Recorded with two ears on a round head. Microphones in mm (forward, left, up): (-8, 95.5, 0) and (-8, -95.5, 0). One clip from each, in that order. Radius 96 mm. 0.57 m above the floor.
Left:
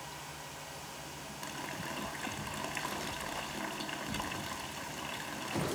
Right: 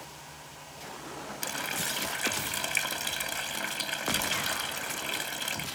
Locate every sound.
1.4 s a running tap: 80° right